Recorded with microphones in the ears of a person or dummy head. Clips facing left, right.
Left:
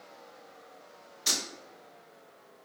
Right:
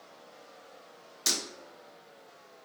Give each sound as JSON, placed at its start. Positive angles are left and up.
{"t": 1.3, "sound": "breaking glass", "side_deg": -65, "distance_m": 1.0}